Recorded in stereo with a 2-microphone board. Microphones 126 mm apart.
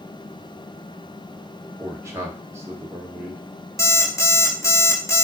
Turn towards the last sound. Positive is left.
turn(degrees=20)  # may be behind; listen again after turning